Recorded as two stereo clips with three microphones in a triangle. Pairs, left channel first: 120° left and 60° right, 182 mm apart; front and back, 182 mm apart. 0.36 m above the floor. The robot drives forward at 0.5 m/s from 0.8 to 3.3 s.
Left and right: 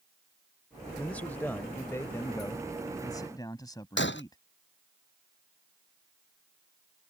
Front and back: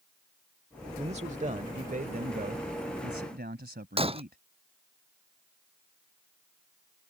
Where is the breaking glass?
120° left.